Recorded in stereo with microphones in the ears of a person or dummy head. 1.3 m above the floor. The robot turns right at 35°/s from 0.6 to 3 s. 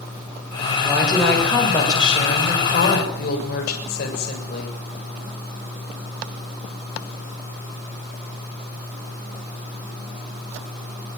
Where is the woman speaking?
15° right, 7 m; by 4.8 s 60° left, 7 m.